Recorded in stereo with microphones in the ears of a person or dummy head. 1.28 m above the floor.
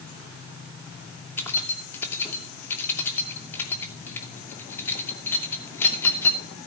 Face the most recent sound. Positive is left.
turn(degrees=15)  # may be behind; listen again after turning